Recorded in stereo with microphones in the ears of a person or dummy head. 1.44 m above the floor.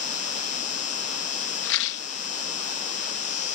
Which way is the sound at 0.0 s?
40° left (ahead or behind).